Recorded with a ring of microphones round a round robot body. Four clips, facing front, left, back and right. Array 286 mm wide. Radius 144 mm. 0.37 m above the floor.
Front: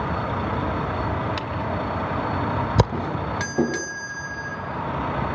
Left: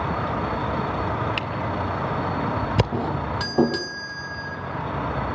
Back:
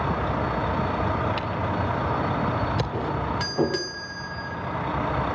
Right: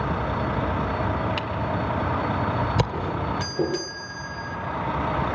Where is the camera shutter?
25° left, 1.8 m.